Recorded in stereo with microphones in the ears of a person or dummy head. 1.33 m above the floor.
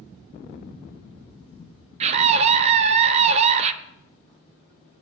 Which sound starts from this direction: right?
A scream, at 2.0 s.